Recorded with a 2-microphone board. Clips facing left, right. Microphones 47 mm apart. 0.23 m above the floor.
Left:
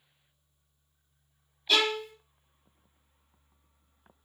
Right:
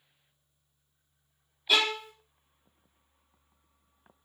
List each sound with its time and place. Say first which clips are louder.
1.7 s a violin: even; 10° right (ahead or behind), 0.6 m